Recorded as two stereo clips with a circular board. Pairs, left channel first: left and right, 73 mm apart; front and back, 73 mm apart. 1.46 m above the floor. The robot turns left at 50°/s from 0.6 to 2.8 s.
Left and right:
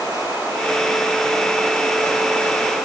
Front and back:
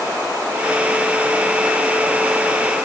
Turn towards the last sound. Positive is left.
No sound to turn to.